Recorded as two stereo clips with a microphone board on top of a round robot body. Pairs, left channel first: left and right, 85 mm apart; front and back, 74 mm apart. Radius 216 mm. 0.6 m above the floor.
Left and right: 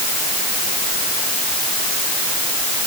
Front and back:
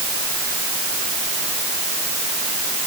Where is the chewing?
I don't hear chewing.